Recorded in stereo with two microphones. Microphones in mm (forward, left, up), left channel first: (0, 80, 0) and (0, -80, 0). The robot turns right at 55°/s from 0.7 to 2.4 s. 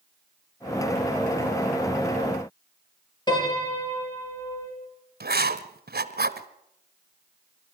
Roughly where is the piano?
Left.